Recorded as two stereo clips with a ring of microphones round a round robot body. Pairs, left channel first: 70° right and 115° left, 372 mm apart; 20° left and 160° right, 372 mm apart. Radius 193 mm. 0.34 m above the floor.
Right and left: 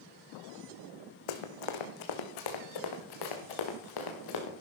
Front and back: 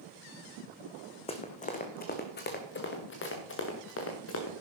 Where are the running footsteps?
50° right, 1.6 m; by 4.5 s 35° right, 3.5 m.